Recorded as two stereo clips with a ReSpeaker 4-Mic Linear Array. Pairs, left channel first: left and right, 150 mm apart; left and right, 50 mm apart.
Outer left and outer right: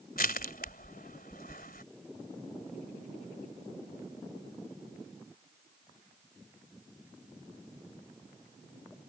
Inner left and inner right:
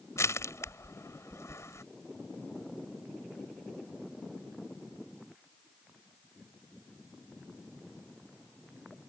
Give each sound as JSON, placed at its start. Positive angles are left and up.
{"t": 0.2, "sound": "crushing", "side_deg": 75}